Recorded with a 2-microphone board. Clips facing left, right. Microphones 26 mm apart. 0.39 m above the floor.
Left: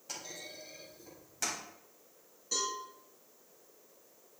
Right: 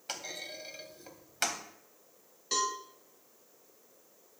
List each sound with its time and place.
0.1 s a clunk: 65° right (ahead or behind), 1.4 m
2.5 s a cowbell: 70° right (ahead or behind), 2 m